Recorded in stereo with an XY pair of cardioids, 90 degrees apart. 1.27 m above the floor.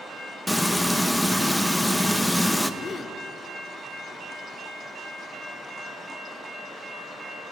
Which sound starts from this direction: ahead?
Frying, at 0.5 s.